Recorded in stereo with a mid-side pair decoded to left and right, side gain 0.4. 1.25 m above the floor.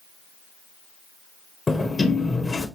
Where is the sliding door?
30° left, 1.1 m.